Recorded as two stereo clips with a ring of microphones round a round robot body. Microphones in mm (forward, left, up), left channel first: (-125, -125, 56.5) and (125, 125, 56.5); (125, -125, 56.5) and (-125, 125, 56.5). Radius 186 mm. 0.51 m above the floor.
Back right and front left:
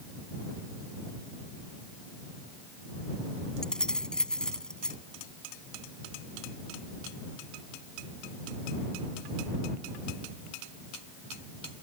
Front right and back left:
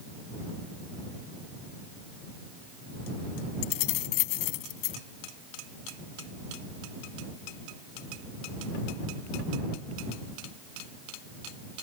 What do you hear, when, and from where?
3.6 s keys jangling: 45° right